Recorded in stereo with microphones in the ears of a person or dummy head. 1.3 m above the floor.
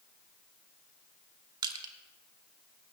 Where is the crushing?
30° right (ahead or behind), 1.1 m.